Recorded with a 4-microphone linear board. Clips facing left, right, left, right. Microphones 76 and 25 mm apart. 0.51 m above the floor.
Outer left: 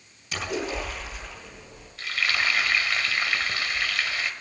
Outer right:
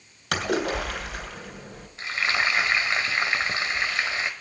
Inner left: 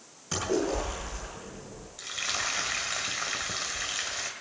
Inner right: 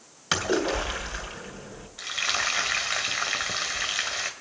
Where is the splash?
80° right, 3 m.